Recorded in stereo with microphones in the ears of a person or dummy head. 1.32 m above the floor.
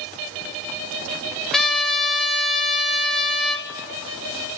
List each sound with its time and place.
1.5 s a trumpet: centre (ahead or behind), 0.6 m